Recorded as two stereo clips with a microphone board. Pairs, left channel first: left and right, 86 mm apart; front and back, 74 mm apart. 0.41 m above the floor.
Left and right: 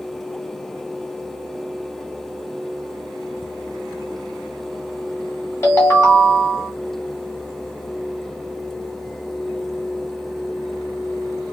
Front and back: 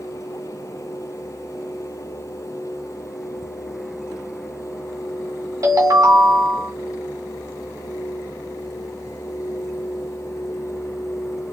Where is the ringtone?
150° left, 1.8 m.